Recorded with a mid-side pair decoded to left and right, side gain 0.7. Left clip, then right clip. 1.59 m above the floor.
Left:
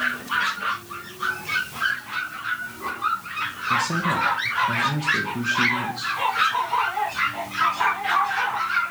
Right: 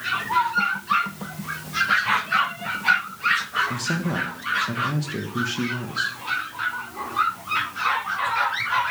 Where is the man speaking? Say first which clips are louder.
Left 5 dB; 10° right, 1.6 m.